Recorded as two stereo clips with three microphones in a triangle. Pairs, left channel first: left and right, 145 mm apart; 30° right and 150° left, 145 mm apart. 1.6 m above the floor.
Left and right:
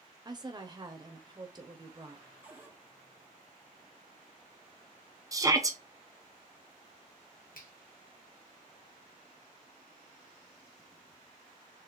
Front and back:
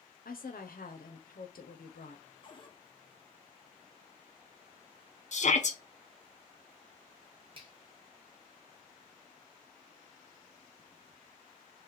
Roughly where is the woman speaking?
Ahead right.